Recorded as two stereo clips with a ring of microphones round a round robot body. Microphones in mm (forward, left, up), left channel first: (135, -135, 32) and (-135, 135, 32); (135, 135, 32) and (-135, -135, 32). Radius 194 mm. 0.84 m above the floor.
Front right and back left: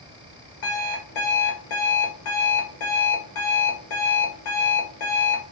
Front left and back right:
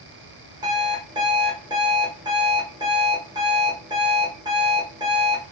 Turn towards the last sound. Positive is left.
turn(degrees=-55)